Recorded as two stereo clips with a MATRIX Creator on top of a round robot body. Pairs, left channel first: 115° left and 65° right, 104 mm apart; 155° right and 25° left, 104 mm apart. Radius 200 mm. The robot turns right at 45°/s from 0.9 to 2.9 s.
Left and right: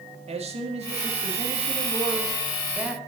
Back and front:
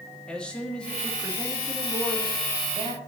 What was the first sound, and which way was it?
A man speaking, 75° right.